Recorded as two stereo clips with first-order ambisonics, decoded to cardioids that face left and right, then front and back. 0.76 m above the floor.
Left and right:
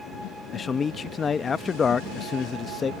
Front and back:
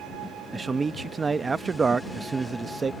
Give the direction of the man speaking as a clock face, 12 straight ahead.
8 o'clock.